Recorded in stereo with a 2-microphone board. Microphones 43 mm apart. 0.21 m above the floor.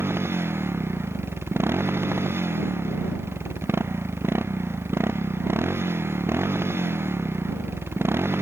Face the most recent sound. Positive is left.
turn(degrees=-80)